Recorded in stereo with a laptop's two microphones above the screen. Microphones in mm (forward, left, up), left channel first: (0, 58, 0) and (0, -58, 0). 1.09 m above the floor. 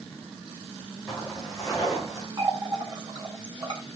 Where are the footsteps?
5° left (ahead or behind), 6.5 m; by 2.3 s centre (ahead or behind), 4.5 m.